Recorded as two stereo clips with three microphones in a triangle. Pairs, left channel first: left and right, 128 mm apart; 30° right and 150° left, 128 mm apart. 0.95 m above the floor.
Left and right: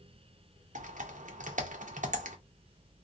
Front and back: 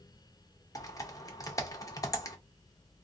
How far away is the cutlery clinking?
I don't hear cutlery clinking.